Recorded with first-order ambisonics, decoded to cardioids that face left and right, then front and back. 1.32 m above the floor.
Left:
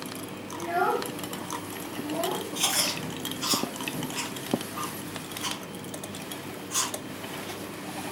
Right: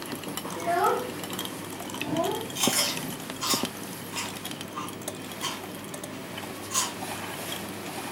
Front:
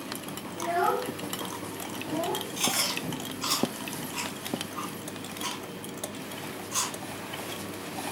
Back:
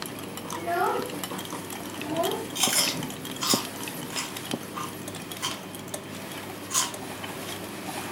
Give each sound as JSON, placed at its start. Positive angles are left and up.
{"t": 0.6, "sound": "a child speaking", "azimuth_deg": -85, "distance_m": 1.2}
{"t": 2.5, "sound": "chewing", "azimuth_deg": -165, "distance_m": 1.5}